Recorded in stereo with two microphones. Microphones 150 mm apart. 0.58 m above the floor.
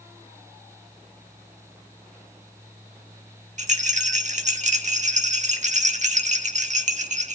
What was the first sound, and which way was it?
A rattle, 55° right (ahead or behind).